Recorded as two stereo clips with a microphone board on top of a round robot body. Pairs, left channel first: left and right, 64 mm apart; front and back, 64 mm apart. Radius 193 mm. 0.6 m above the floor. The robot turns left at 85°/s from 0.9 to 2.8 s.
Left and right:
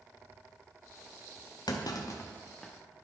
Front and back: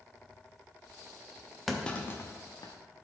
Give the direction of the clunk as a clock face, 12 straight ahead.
9 o'clock.